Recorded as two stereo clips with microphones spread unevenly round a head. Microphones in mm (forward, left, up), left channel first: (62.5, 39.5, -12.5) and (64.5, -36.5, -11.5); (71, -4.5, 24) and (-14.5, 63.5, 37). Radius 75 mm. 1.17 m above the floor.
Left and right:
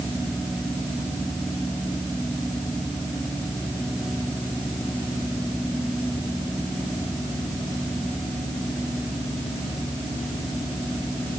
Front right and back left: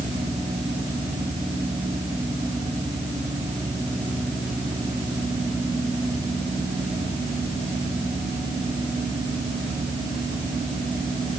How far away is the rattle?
I don't hear a rattle.